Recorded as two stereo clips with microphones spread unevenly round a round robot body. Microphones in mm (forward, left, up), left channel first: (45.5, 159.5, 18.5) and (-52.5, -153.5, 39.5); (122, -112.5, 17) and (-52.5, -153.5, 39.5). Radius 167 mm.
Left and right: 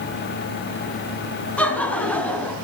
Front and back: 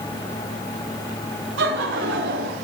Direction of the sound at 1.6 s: 160° left.